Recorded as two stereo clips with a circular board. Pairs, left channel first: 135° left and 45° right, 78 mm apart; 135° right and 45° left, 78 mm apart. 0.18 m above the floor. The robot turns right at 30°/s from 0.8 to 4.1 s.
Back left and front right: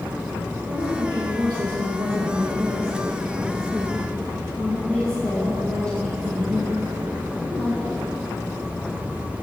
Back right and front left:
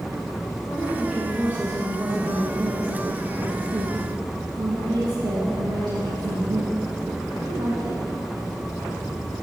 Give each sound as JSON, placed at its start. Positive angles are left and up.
{"t": 0.7, "sound": "a woman speaking", "azimuth_deg": -50, "distance_m": 4.0}